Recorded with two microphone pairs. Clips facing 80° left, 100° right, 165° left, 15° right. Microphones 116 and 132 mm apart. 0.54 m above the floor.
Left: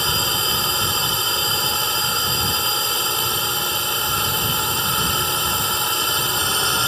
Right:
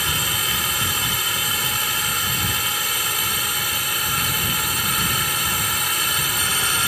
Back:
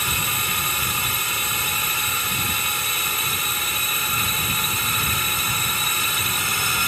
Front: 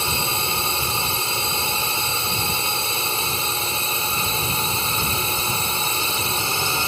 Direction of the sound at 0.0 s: 25° left.